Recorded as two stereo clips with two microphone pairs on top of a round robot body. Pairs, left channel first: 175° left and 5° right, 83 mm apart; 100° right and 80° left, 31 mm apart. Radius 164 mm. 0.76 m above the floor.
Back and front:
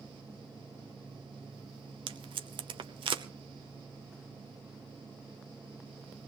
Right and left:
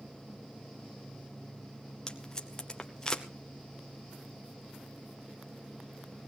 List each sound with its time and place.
2.1 s tape being pulled: 35° right, 0.7 m